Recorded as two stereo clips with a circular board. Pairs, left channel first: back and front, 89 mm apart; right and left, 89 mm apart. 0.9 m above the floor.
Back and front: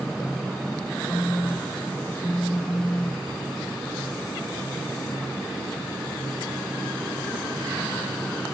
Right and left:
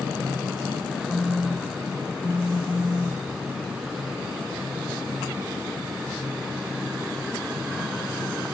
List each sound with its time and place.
1.1 s a phone buzzing: straight behind, 0.9 m